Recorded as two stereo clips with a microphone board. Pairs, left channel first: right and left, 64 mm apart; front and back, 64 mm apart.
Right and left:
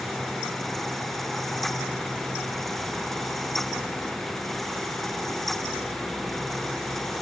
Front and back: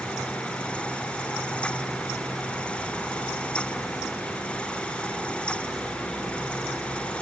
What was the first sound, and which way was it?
Only background noise.